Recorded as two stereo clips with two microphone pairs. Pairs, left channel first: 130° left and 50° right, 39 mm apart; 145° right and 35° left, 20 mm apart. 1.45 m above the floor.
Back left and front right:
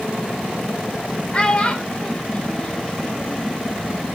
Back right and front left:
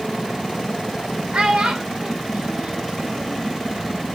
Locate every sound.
1.3 s a child speaking: 70° left, 2.5 m